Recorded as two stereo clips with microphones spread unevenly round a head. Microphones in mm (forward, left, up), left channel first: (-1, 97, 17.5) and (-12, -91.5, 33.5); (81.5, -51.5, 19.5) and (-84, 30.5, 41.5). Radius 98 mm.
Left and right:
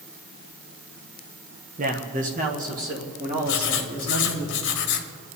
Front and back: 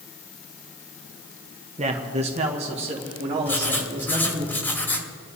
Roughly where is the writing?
Ahead left.